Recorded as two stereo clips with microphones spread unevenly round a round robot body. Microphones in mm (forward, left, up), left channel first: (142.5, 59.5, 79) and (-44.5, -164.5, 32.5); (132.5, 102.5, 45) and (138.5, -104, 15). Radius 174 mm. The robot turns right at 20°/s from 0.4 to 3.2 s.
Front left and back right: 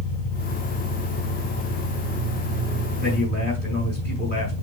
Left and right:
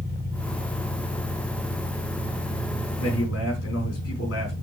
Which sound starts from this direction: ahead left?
An engine running, at 0.0 s.